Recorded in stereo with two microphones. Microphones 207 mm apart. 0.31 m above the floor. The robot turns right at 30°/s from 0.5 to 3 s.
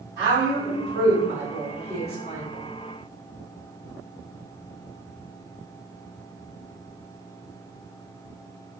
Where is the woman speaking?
25° left (ahead or behind), 1.7 m; by 2.4 s 45° left (ahead or behind), 1.7 m.